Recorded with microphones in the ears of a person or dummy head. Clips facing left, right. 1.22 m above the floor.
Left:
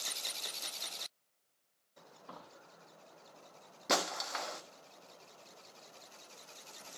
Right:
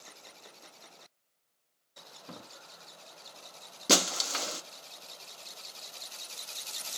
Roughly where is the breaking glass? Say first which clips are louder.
Right 5 dB; right.